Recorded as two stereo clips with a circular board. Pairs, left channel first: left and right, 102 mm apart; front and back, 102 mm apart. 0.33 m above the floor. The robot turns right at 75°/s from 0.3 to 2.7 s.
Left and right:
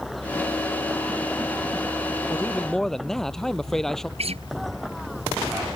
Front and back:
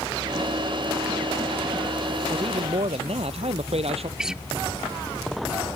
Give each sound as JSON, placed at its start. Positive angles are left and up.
{"t": 2.3, "sound": "a man speaking", "azimuth_deg": 145}
{"t": 4.2, "sound": "a guitar", "azimuth_deg": -95}